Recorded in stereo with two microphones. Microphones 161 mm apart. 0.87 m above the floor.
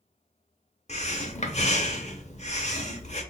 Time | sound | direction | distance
0.9 | breathing | 45° left (ahead or behind) | 0.8 m